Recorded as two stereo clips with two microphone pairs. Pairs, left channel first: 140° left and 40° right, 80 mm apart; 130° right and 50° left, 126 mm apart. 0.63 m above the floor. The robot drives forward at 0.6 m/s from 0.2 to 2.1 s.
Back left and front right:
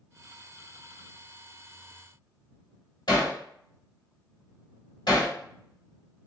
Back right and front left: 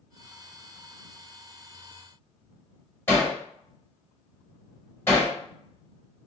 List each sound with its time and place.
3.1 s hammering: 155° left, 1.7 m